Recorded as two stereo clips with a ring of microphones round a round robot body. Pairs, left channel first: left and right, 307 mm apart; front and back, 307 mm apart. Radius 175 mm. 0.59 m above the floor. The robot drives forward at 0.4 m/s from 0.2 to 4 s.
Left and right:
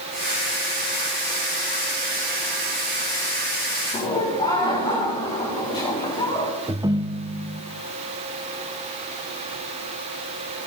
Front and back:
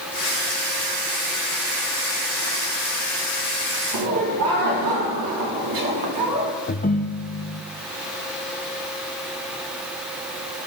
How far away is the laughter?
About 4 m.